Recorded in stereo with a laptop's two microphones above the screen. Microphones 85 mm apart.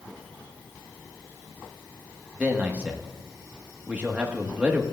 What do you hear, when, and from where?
2.4 s a man speaking: 20° right (ahead or behind), 1.1 m